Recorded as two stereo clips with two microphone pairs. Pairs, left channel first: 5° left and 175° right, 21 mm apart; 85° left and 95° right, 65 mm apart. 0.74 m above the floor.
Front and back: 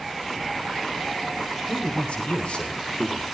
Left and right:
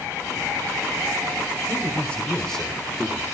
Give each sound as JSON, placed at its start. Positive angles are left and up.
{"t": 1.7, "sound": "a man speaking", "azimuth_deg": 15, "distance_m": 3.0}